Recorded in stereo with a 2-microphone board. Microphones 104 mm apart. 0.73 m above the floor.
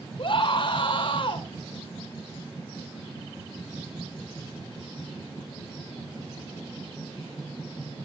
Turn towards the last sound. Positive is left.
turn(degrees=50)  # may be behind; listen again after turning